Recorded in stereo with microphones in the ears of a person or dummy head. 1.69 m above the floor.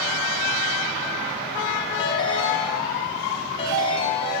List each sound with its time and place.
2.0 s a ringtone: 30° left (ahead or behind), 3 m